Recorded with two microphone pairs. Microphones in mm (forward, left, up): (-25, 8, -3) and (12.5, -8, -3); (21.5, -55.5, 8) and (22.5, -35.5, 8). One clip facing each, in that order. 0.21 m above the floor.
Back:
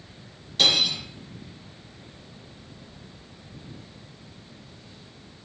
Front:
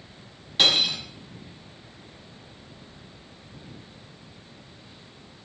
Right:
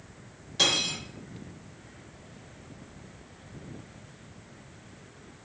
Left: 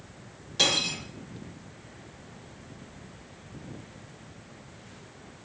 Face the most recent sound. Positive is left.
turn(degrees=5)